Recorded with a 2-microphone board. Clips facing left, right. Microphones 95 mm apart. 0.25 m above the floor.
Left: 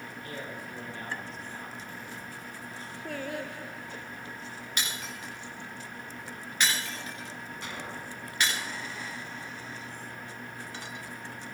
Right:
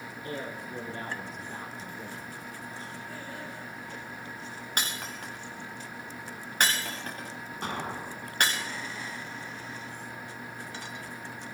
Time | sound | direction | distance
0.2 | a man speaking | 25° right (ahead or behind) | 3 m
3.0 | singing | 70° left (ahead or behind) | 2.5 m
4.8 | breaking glass | 50° right (ahead or behind) | 5.5 m
7.6 | an explosion | 50° right (ahead or behind) | 1.4 m